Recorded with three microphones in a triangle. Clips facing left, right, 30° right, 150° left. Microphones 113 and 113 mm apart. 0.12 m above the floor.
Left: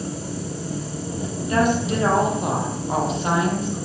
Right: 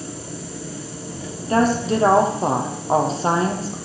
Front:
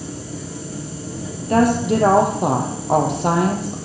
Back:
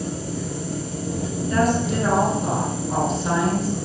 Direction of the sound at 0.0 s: 150° left.